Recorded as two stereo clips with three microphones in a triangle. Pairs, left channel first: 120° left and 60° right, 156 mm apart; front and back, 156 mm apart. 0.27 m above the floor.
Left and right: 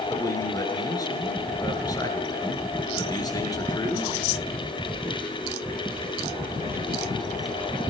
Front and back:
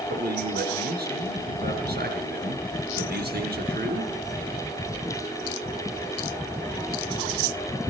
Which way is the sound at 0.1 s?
175° right.